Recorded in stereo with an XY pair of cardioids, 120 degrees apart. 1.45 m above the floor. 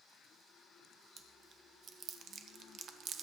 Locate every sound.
1.2 s chewing: 50° right, 1.2 m